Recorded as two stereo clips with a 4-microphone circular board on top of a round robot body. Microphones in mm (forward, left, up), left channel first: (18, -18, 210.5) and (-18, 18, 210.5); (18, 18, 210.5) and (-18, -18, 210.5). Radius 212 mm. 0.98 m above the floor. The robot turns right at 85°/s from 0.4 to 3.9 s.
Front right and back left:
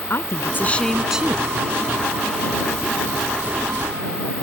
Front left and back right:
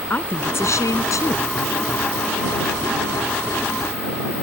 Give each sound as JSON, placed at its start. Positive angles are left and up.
{"t": 0.1, "sound": "a woman speaking", "azimuth_deg": -5}